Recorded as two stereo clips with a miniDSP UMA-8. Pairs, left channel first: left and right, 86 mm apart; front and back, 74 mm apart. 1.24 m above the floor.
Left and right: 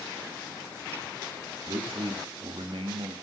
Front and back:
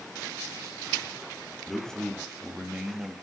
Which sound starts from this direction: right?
A man speaking, at 1.7 s.